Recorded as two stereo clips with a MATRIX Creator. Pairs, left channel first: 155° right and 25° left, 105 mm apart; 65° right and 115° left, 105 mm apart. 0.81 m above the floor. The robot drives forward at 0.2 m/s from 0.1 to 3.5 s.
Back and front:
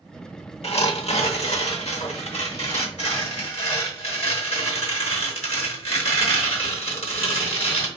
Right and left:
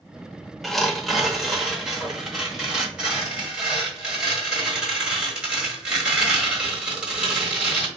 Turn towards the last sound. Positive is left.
turn(degrees=-165)